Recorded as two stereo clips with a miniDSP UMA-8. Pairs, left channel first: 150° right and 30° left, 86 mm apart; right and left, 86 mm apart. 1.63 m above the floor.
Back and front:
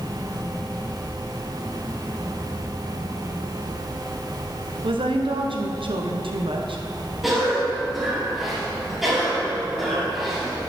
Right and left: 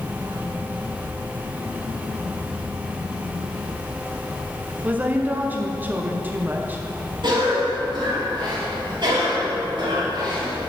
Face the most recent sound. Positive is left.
turn(degrees=120)